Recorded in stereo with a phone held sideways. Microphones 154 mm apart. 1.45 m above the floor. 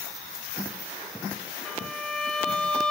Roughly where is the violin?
Centre.